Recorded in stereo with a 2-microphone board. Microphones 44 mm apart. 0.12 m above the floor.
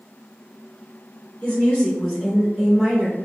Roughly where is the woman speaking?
Left.